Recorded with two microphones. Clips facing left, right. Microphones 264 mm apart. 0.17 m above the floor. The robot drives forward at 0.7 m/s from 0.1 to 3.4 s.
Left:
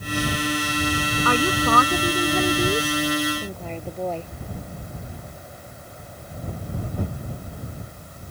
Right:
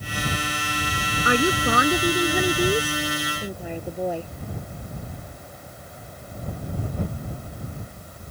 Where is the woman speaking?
20° right (ahead or behind); by 4.3 s 10° right (ahead or behind).